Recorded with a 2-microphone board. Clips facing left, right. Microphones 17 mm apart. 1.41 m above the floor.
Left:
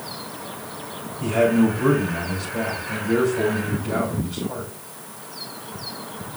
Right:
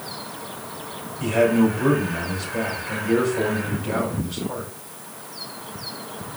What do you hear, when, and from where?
1.2 s a man speaking: 45° right (ahead or behind), 6 m